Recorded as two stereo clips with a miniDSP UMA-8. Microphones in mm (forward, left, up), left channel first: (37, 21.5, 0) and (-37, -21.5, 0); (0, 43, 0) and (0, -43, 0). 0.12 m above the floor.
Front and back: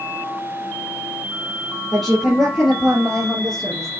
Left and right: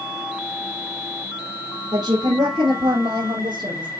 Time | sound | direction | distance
1.9 | a woman speaking | 55° right | 2.5 m